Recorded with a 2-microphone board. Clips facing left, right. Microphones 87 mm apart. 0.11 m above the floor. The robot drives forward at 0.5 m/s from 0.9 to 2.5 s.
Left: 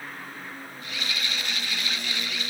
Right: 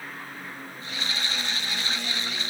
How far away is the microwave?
I don't hear a microwave.